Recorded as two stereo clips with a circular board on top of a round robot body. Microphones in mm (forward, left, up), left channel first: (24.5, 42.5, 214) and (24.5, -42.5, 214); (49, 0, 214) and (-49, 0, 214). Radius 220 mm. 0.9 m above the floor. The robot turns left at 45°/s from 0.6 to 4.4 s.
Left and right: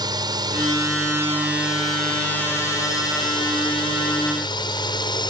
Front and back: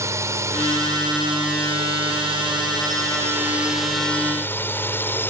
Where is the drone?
120° right; by 5.3 s 65° left.